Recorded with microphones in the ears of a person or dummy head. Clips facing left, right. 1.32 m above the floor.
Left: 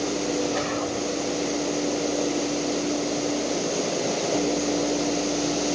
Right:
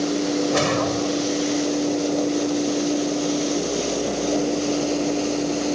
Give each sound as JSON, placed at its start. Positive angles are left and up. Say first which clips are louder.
{"t": 0.5, "sound": "a whoosh", "louder": "right 5 dB", "side_deg": -70}